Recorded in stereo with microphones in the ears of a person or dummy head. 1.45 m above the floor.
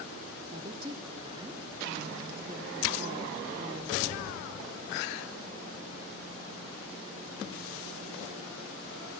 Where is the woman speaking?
25° right (ahead or behind), 1.1 m.